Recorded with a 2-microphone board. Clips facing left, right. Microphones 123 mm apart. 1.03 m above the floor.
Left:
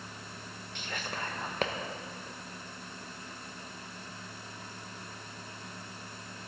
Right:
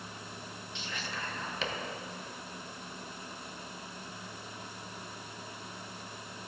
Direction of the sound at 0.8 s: 55° left (ahead or behind).